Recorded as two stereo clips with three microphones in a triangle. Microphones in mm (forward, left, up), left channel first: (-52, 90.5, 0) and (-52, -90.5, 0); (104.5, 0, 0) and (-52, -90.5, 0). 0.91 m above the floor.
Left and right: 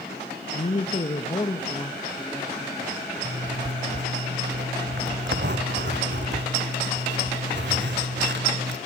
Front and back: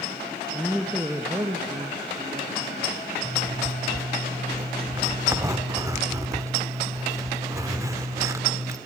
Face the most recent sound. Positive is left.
turn(degrees=-75)